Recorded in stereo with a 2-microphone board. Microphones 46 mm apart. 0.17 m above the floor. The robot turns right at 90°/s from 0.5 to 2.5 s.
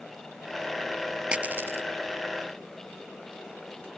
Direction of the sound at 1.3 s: 20° right (ahead or behind).